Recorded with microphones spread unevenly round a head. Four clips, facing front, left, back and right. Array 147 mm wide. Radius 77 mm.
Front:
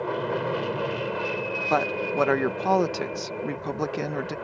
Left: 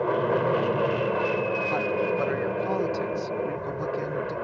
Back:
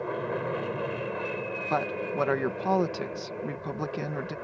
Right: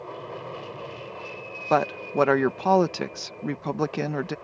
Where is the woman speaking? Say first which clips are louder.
Right 7 dB, front 4 dB; 70° right.